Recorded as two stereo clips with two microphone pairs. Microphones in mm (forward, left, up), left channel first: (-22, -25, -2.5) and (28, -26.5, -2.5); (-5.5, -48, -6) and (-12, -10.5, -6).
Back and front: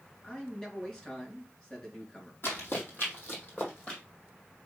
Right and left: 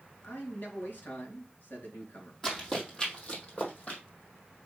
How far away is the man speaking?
About 4 m.